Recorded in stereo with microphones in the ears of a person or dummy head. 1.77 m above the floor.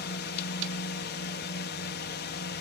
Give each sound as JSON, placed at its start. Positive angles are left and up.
{"t": 0.0, "sound": "a drone", "side_deg": 45}